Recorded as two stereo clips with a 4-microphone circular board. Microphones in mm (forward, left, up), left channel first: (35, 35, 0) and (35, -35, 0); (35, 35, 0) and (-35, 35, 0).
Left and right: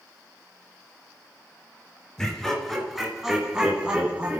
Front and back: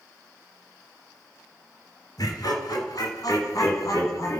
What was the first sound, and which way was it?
Laughter, 5° left.